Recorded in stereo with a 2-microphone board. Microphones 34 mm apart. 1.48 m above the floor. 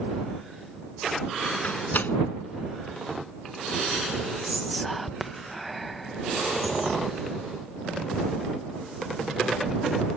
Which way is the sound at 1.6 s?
75° left (ahead or behind).